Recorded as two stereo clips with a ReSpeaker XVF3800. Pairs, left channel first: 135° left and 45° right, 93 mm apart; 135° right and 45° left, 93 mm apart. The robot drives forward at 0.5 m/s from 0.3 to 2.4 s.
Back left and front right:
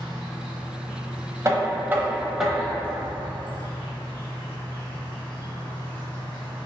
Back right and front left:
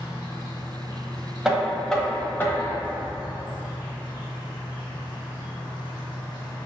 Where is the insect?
140° right, 1.3 m; by 6.7 s 165° right, 2.0 m.